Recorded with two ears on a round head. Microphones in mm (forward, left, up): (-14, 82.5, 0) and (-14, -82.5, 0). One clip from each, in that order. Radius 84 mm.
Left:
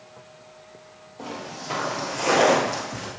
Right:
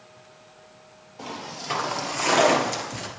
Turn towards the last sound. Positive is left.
turn(degrees=-30)  # may be behind; listen again after turning